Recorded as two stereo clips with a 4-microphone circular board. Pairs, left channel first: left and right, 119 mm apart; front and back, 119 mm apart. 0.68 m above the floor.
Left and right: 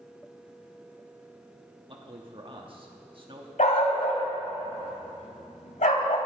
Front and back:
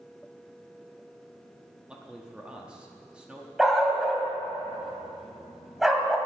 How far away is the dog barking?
About 1.4 m.